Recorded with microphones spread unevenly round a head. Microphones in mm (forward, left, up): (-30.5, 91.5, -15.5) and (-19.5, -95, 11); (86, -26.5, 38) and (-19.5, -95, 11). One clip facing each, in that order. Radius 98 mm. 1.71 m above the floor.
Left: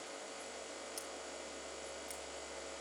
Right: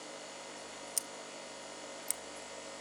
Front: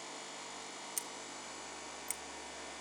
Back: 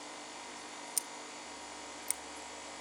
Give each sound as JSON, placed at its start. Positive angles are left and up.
{"t": 1.0, "sound": "scissors", "azimuth_deg": -85, "distance_m": 0.6}